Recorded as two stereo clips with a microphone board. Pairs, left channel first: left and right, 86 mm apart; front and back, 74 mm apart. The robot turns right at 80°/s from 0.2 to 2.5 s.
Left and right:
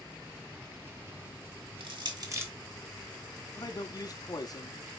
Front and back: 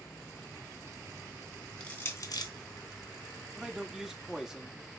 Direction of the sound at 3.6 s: 100° left.